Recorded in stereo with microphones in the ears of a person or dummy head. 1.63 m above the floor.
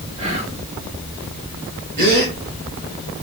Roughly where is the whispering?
Right.